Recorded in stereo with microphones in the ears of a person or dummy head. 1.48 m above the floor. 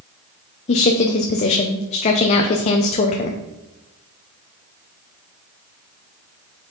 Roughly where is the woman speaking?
Left.